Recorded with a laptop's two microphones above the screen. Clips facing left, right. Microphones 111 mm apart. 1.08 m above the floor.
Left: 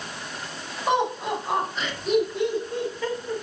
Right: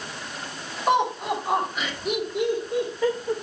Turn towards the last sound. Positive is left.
turn(degrees=-15)  # may be behind; listen again after turning